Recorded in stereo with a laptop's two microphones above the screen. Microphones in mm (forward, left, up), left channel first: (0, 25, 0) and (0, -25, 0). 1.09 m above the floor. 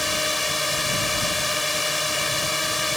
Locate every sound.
0.0 s a drone: centre (ahead or behind)